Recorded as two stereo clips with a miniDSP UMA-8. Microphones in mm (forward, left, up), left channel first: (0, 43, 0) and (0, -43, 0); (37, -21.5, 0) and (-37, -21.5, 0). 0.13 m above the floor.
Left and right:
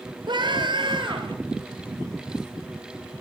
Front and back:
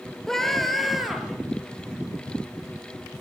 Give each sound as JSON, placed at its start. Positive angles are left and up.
{"t": 0.3, "sound": "a scream", "azimuth_deg": -80, "distance_m": 3.0}